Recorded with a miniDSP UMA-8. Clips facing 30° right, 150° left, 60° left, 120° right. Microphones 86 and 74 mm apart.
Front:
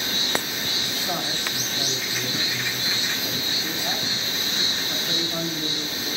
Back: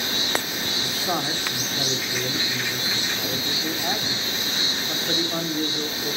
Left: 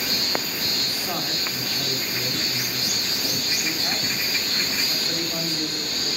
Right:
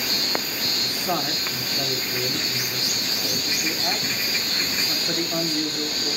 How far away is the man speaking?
About 1.5 m.